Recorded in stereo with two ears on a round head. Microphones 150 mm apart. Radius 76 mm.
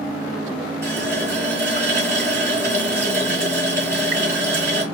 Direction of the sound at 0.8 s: 50° right (ahead or behind).